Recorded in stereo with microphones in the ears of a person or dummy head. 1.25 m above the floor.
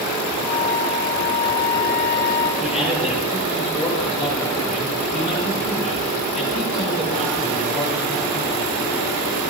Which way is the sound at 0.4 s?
55° left (ahead or behind).